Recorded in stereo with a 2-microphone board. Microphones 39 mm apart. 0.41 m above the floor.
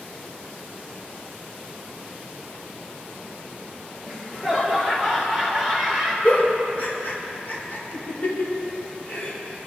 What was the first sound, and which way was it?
Laughter, centre (ahead or behind).